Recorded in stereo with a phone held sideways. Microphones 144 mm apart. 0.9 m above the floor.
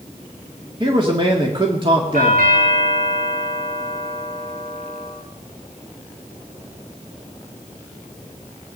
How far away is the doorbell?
About 6.5 m.